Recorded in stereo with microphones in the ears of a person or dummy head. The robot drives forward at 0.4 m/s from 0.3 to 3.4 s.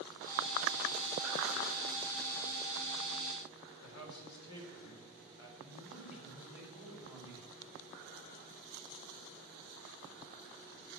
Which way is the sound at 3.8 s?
80° left.